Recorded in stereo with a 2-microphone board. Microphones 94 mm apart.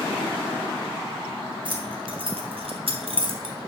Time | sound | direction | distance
1.6 | keys jangling | 55° right (ahead or behind) | 2.5 m